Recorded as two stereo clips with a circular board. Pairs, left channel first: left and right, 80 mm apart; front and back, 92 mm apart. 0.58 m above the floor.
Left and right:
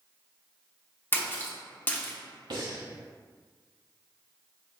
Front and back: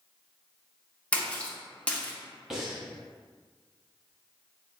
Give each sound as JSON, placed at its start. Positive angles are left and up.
{"t": 1.1, "sound": "a splash", "azimuth_deg": 65, "distance_m": 0.7}
{"t": 2.5, "sound": "breathing", "azimuth_deg": -95, "distance_m": 0.8}